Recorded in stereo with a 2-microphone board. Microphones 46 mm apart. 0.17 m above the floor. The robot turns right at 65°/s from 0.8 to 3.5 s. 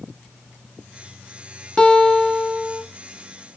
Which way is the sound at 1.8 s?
20° left (ahead or behind).